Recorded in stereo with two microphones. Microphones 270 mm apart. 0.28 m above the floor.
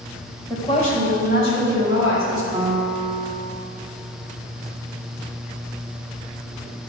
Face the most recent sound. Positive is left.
turn(degrees=-25)  # may be behind; listen again after turning